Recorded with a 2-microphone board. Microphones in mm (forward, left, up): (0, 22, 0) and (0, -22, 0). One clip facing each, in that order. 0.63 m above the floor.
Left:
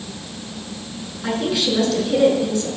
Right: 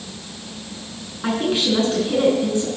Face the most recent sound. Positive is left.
turn(degrees=-30)  # may be behind; listen again after turning